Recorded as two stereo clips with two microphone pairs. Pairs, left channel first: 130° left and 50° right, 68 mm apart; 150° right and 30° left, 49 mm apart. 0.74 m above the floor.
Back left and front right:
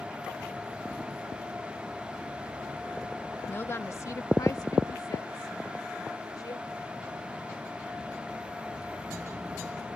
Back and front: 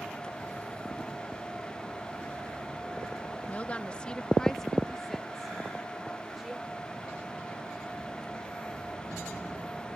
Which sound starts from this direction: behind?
A woman speaking, at 3.5 s.